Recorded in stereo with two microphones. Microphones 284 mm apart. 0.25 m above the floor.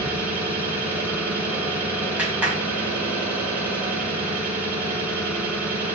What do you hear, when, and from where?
0.0 s an engine running: 5° right (ahead or behind), 2.5 m
2.2 s a clap: 5° right (ahead or behind), 1.6 m